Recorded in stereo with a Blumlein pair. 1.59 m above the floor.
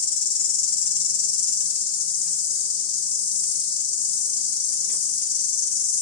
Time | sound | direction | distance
0.0 | an insect | 50° left | 0.9 m